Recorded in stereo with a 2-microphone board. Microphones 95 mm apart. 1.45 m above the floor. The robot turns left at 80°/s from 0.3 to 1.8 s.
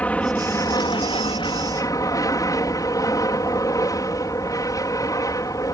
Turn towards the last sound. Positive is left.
turn(degrees=45)